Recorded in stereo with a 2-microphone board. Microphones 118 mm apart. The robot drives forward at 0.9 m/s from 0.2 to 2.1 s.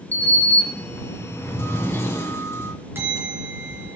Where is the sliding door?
15° left (ahead or behind), 2.5 m; by 2.7 s 20° left (ahead or behind), 1.7 m.